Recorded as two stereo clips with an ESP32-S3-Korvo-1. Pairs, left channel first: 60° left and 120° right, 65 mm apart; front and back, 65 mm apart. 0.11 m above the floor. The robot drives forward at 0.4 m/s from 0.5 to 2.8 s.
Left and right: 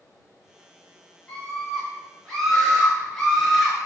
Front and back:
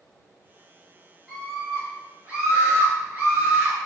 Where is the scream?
110° left, 1.3 m; by 3.9 s 150° left, 1.5 m.